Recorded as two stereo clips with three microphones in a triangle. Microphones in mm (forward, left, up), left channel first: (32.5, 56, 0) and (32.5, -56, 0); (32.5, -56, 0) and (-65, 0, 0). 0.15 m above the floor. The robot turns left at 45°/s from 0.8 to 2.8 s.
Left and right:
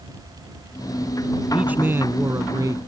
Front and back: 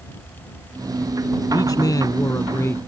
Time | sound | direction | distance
1.5 | a man speaking | 20° right | ?